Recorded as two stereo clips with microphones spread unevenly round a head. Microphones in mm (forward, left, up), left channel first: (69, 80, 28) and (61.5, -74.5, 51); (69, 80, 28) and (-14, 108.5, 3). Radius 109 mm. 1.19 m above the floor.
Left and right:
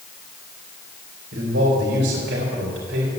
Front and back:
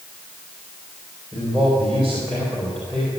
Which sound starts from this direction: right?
A man speaking, at 1.3 s.